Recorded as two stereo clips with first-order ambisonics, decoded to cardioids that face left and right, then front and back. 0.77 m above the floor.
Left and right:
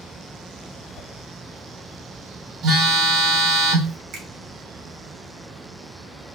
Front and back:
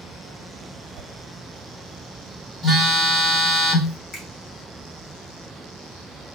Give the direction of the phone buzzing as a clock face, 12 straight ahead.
3 o'clock.